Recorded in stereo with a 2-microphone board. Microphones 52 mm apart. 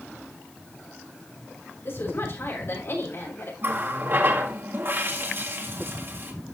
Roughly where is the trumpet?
I don't hear a trumpet.